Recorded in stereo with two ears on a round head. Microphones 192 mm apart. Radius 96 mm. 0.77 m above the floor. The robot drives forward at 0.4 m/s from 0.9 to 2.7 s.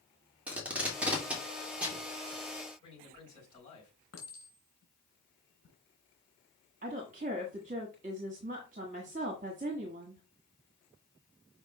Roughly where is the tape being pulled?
Centre.